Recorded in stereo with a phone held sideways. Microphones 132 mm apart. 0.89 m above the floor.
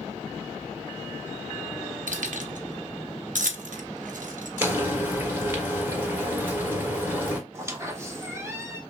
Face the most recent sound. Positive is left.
turn(degrees=-20)  # may be behind; listen again after turning